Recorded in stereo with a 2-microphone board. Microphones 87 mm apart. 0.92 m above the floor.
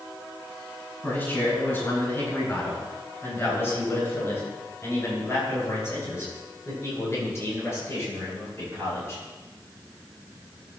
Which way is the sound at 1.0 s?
25° left (ahead or behind).